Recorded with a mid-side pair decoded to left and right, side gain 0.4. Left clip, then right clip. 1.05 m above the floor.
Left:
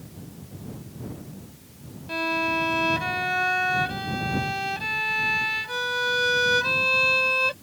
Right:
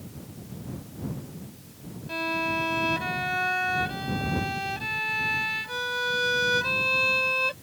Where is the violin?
25° left.